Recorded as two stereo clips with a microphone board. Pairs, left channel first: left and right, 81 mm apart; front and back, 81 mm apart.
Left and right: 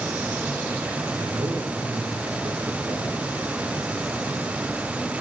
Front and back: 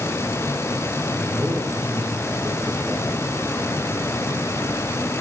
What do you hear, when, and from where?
1.2 s a man speaking: 90° right, 3.5 m